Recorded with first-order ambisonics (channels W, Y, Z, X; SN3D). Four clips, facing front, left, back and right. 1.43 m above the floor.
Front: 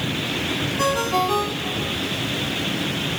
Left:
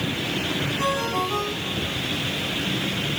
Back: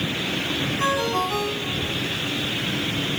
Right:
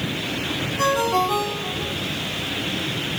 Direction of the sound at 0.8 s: 35° right.